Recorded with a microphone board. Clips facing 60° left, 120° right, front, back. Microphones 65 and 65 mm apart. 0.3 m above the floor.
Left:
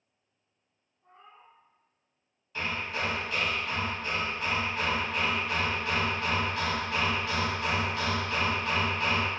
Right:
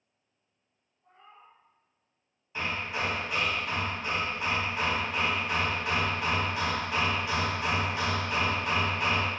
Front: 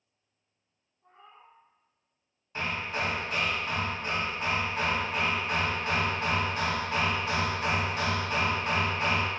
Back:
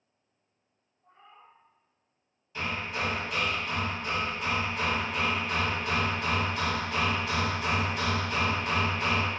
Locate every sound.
1.0 s a cat meowing: 5° left, 1.1 m
2.5 s hammering: 50° right, 0.7 m